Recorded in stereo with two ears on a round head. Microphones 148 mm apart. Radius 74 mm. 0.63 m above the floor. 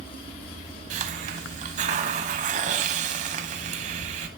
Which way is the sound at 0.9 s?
45° right (ahead or behind).